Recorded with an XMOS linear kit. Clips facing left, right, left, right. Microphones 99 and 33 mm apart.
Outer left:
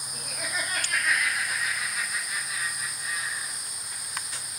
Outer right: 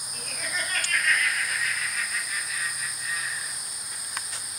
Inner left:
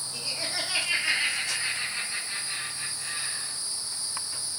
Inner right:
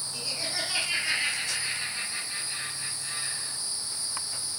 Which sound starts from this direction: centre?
Laughter, at 0.1 s.